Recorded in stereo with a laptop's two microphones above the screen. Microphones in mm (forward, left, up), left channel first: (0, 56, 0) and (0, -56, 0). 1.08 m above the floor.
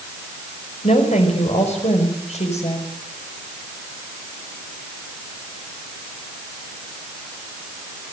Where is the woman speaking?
80° left, 5.5 m.